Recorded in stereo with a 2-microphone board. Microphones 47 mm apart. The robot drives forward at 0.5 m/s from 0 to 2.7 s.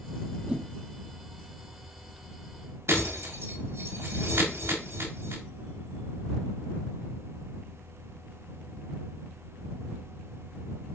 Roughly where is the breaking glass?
Right.